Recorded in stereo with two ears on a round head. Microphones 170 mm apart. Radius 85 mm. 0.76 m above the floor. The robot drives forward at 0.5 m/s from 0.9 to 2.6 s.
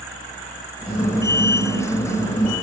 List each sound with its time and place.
Only background noise.